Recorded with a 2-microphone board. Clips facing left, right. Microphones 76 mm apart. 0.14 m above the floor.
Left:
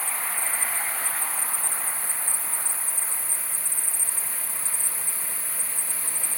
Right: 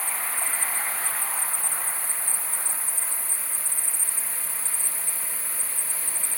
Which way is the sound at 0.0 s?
60° left (ahead or behind).